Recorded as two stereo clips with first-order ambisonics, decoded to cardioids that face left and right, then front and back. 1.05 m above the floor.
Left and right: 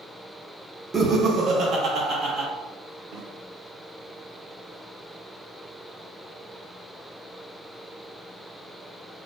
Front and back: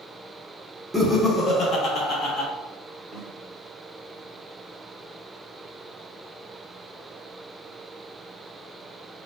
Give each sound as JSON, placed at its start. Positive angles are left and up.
{"t": 0.9, "sound": "laughter", "azimuth_deg": -85, "distance_m": 0.5}
{"t": 3.1, "sound": "a snare drum", "azimuth_deg": -95, "distance_m": 1.2}